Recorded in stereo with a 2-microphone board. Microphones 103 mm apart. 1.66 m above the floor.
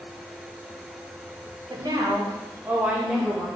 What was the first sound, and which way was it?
A woman speaking, 50° right (ahead or behind).